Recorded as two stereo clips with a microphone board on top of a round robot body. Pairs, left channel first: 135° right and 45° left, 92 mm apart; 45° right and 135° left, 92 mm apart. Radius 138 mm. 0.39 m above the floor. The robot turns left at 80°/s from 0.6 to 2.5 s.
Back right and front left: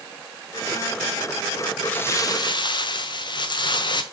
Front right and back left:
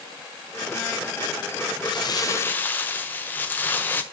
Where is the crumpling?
60° right, 1.5 m; by 4.0 s 115° right, 1.5 m.